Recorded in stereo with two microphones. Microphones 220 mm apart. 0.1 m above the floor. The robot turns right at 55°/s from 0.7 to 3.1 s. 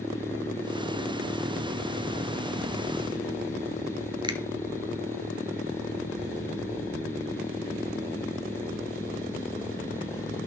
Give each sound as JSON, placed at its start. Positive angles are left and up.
{"t": 4.2, "sound": "a finger snap", "side_deg": -20, "distance_m": 1.1}